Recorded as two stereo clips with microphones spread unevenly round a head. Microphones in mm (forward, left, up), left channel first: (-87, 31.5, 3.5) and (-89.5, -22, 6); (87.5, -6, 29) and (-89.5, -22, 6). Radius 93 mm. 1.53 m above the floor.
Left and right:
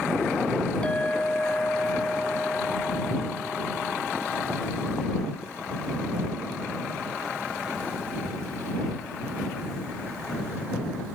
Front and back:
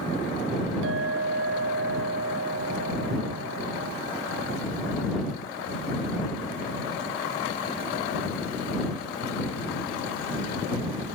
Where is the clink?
155° left.